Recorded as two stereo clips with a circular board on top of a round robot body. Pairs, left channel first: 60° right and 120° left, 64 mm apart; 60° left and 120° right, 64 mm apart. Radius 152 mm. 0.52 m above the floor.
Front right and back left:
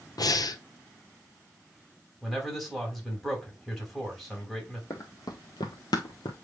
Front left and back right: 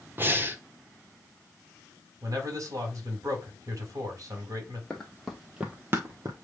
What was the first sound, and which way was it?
Breathing, 60° right.